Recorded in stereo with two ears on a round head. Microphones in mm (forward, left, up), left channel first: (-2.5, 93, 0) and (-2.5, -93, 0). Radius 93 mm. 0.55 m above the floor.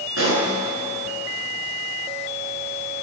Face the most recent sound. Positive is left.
turn(degrees=-75)  # may be behind; listen again after turning